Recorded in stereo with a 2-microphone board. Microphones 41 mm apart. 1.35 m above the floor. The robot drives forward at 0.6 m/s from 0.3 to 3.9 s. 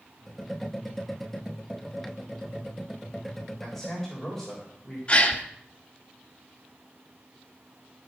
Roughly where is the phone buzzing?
No phone buzzing in this recording.